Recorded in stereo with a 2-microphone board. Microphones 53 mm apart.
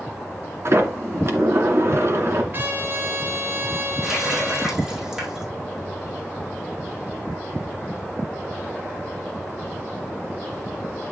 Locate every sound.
0.7 s a sliding door: 55° right (ahead or behind), 2.5 m
2.5 s a trumpet: 45° right (ahead or behind), 3 m
4.0 s a running tap: 15° right (ahead or behind), 6.5 m